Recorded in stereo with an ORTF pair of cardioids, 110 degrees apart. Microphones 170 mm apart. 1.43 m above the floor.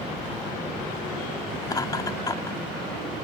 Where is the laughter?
25° left.